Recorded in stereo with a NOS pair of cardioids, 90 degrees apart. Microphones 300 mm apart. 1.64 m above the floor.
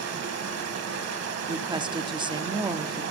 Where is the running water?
55° right, 1.7 m.